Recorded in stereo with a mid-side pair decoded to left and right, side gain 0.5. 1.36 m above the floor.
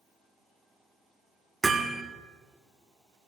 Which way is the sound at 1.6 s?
25° right.